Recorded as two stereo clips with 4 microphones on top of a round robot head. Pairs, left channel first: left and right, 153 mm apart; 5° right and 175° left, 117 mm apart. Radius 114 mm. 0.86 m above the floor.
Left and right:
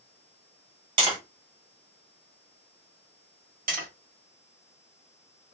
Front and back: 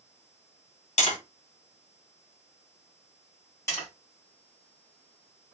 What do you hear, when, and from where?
1.0 s tapping: 30° right, 1.5 m
3.7 s tapping: 75° right, 1.8 m